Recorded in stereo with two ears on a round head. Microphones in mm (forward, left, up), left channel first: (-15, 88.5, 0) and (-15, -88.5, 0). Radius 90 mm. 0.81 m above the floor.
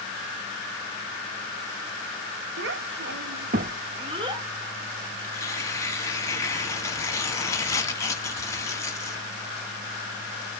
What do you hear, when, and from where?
2.6 s a child speaking: 60° right (ahead or behind), 0.8 m; by 4.5 s 20° right (ahead or behind), 0.9 m
5.2 s tearing paper: 15° left (ahead or behind), 1.0 m